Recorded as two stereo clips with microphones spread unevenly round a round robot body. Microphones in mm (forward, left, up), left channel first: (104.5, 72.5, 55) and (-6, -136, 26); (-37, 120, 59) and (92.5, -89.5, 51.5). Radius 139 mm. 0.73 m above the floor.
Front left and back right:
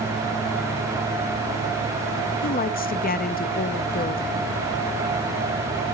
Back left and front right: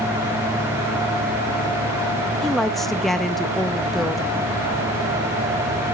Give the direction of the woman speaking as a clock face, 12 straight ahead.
11 o'clock.